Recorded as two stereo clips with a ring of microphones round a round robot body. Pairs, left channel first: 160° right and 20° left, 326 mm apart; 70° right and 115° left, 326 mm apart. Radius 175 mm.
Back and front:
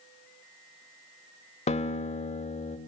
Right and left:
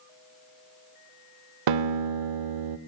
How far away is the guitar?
About 0.7 m.